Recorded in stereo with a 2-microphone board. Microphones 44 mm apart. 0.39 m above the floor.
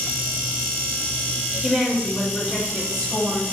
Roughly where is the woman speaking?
Centre.